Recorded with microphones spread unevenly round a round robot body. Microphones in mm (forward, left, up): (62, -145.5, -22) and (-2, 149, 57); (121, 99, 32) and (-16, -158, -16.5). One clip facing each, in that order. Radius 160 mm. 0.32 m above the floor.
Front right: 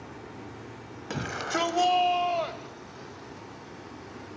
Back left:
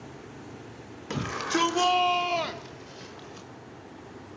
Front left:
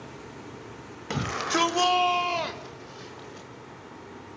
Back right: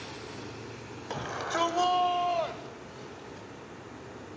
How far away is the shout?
About 2.0 m.